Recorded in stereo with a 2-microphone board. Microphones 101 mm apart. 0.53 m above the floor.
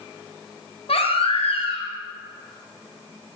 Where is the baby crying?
75° left (ahead or behind), 2.5 m.